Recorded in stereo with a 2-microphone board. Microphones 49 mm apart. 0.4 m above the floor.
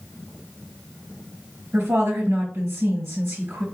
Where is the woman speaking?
65° right (ahead or behind), 3 m.